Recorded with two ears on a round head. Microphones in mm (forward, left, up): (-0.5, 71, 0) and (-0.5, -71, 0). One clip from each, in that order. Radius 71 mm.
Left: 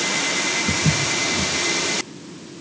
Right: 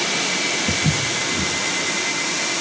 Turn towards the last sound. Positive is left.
turn(degrees=-25)  # may be behind; listen again after turning